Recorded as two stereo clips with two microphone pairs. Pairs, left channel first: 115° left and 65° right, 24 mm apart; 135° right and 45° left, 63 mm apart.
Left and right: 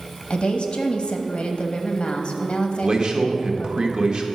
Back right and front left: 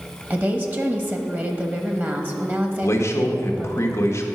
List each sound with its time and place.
0.3 s a woman speaking: 90° left, 1.2 m
2.8 s a man speaking: 100° right, 1.3 m